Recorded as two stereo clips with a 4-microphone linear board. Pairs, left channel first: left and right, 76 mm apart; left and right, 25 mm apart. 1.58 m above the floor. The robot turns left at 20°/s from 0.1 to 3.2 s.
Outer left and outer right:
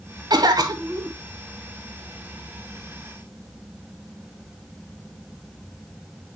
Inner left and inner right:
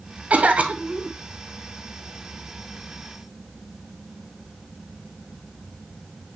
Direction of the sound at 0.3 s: 60° right (ahead or behind).